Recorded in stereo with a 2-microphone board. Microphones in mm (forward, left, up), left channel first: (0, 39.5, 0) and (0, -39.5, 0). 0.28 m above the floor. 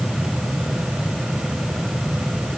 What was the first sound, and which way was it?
Only background noise.